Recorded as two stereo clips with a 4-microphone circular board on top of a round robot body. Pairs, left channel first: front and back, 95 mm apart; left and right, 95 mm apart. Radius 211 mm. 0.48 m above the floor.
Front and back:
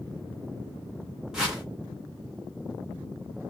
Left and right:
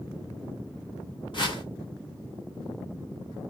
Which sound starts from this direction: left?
A whoosh, at 1.3 s.